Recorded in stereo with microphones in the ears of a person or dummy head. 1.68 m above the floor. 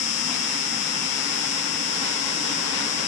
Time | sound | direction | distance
0.0 | an insect | 40° left (ahead or behind) | ?